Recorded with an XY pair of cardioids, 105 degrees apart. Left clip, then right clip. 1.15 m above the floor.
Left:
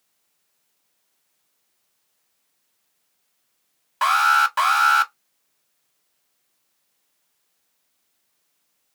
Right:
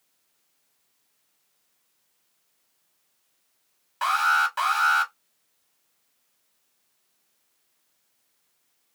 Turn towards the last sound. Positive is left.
turn(degrees=45)